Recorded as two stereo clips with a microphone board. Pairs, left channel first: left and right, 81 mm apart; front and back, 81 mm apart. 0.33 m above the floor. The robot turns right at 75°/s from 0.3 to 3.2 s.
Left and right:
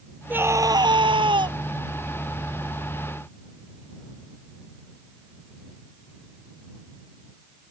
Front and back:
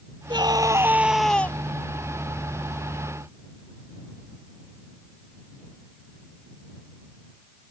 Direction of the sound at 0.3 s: 160° right.